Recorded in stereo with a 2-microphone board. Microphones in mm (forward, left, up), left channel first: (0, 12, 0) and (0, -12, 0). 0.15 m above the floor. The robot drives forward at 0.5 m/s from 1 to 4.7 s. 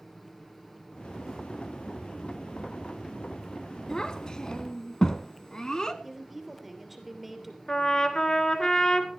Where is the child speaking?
25° left (ahead or behind), 0.9 m.